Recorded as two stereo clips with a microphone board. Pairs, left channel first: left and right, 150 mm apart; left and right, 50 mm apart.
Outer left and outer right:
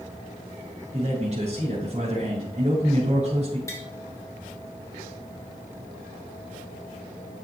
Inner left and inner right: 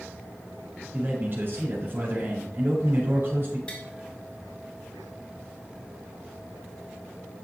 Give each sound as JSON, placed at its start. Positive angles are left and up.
{"t": 0.9, "sound": "a man speaking", "side_deg": -50, "distance_m": 3.5}
{"t": 3.7, "sound": "tapping", "side_deg": 20, "distance_m": 1.7}